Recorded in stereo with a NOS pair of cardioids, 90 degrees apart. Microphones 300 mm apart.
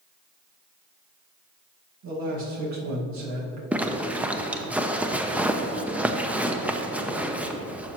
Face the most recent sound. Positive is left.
turn(degrees=-5)